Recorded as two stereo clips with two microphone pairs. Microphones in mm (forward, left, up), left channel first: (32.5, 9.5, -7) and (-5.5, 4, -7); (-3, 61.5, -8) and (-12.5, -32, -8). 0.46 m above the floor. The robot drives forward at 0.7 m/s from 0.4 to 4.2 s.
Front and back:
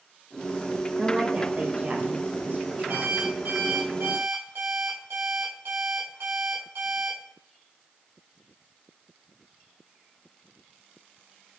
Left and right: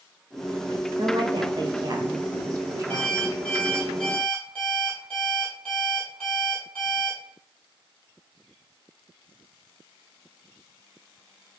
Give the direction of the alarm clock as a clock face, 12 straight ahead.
7 o'clock.